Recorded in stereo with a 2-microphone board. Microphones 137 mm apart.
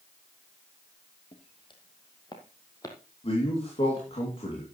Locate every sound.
1.3 s footsteps: 40° left (ahead or behind), 1.9 m; by 3.0 s 25° left (ahead or behind), 2 m
3.2 s a man speaking: 45° left (ahead or behind), 3 m